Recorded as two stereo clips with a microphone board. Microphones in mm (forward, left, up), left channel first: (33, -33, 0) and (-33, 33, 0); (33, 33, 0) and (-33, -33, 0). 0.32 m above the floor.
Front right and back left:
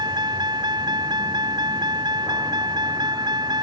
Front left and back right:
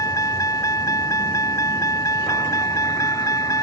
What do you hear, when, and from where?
0.0 s a vehicle: 95° left